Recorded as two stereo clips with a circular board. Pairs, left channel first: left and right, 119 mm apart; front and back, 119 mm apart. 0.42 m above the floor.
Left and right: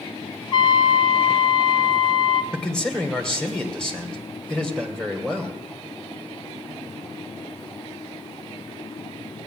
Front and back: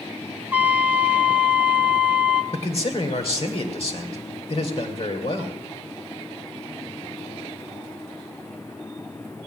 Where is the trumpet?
110° left, 1.0 m.